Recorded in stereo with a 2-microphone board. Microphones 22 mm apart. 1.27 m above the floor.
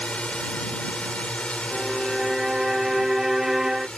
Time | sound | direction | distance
0.0 | a drone | 70° left (ahead or behind) | ?
1.7 | a violin | 25° right (ahead or behind) | ?